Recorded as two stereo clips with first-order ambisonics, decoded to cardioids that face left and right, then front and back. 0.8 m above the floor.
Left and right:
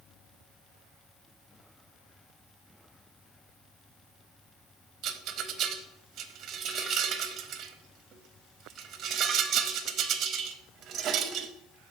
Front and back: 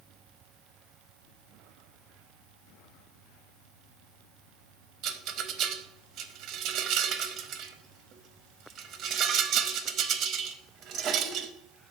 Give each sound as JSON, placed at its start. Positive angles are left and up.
{"t": 5.0, "sound": "a rattle", "azimuth_deg": -135, "distance_m": 0.6}